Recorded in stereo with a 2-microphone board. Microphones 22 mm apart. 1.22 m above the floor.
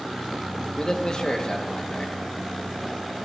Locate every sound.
0.8 s a man speaking: 35° left (ahead or behind), 2.5 m